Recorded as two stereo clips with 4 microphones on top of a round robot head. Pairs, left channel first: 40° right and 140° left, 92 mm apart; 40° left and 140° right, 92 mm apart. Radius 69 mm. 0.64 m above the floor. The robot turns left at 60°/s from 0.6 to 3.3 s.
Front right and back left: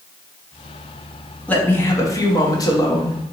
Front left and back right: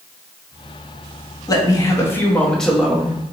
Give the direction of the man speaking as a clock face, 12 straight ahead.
11 o'clock.